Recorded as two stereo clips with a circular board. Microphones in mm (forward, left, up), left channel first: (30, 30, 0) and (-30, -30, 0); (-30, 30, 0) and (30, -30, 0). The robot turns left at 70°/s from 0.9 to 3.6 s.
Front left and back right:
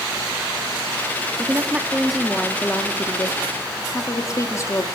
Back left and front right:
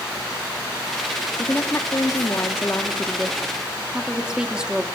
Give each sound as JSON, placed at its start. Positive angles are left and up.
{"t": 1.4, "sound": "a woman speaking", "azimuth_deg": -175, "distance_m": 1.3}